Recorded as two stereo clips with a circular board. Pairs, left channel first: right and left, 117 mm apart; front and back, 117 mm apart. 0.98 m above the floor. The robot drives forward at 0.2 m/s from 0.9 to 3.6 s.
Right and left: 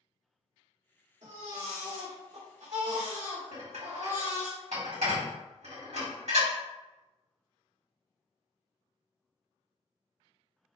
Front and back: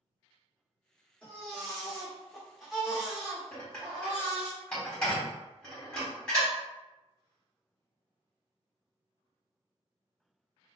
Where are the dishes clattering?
85° left, 1.7 m.